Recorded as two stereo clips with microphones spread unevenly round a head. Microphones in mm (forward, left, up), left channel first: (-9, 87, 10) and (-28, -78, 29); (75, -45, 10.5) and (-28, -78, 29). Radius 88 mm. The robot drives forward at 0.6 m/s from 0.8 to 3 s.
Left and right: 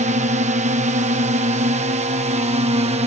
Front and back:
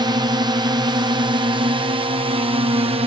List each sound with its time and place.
0.0 s a drone: 125° right; by 3.1 s 140° right